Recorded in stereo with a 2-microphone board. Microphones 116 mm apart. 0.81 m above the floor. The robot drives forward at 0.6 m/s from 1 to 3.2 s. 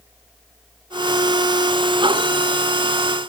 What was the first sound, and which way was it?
Only background noise.